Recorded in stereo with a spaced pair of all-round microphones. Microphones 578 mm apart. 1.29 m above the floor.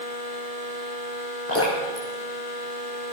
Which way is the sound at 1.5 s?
25° left (ahead or behind).